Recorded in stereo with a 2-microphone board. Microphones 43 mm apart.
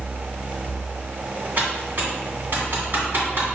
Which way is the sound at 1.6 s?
50° right (ahead or behind).